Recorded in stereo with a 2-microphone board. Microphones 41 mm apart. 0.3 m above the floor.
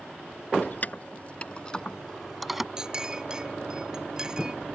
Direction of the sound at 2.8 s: 15° right (ahead or behind).